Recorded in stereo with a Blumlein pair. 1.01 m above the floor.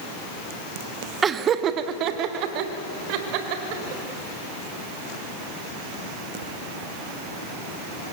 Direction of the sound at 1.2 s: 20° right.